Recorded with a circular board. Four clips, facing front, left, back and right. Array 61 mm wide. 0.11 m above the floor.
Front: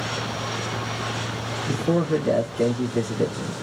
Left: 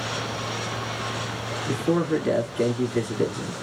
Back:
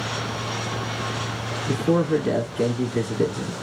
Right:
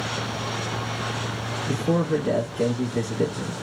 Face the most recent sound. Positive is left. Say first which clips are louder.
# even, back 2 dB
turn(degrees=120)